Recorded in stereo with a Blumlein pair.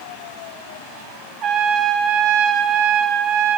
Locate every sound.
1.4 s a trumpet: 30° right, 2.0 m